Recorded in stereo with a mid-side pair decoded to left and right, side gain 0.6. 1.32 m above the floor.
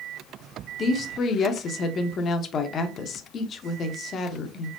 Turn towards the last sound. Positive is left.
turn(degrees=45)